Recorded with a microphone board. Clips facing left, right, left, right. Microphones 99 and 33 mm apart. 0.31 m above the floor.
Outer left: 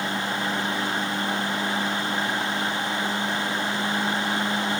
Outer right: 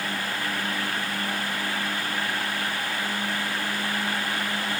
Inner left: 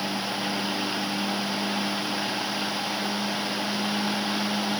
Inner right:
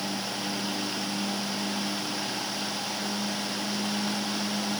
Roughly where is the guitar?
I don't hear a guitar.